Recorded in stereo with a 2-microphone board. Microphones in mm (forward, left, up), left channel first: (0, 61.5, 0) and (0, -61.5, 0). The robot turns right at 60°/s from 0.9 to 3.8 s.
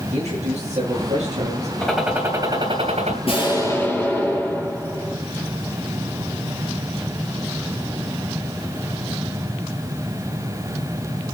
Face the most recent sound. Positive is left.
turn(degrees=160)